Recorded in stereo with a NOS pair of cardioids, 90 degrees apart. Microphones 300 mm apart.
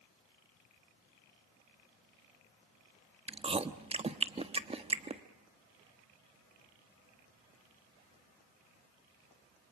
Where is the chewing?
20° right, 1.2 m.